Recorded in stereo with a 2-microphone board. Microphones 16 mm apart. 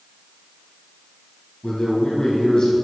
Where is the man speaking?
50° left (ahead or behind), 3.5 m.